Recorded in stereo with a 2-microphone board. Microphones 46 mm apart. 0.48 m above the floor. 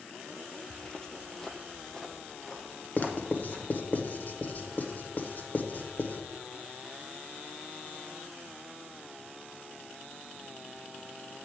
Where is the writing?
45° left (ahead or behind), 1.0 m.